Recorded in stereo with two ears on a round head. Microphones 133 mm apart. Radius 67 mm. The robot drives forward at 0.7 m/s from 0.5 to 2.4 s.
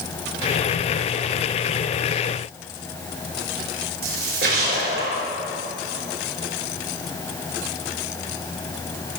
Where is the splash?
80° right, 5 m.